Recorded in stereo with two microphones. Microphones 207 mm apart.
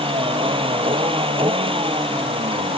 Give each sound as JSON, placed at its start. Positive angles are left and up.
{"t": 0.0, "sound": "a vehicle", "side_deg": -25}